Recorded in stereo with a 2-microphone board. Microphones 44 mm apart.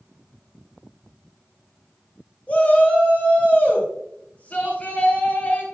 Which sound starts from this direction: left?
A shout, at 2.5 s.